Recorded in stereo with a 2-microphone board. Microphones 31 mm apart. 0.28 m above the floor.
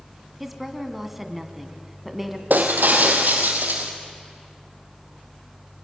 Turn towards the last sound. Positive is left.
turn(degrees=-85)